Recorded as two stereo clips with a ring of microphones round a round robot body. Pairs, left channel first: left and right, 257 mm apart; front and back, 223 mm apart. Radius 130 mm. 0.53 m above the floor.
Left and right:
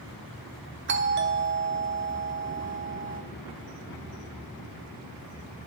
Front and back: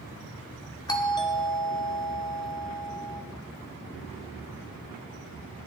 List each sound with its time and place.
0.9 s a doorbell: 65° right, 1.5 m